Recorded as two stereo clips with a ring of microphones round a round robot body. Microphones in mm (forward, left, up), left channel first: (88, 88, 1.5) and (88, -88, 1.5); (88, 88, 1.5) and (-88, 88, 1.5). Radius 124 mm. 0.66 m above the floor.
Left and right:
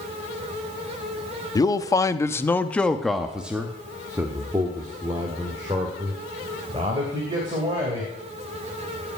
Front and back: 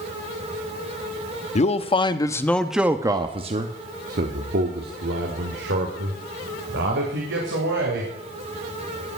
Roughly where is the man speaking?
Ahead left.